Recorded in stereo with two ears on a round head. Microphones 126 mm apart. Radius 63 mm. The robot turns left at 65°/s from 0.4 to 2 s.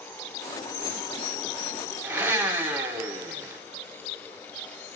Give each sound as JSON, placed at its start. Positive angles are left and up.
{"t": 2.0, "sound": "a blender", "side_deg": -15, "distance_m": 0.7}